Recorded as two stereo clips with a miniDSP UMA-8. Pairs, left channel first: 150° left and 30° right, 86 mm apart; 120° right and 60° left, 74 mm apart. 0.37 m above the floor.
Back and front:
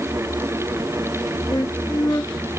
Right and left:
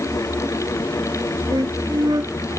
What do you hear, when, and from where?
1.5 s a flute: 95° left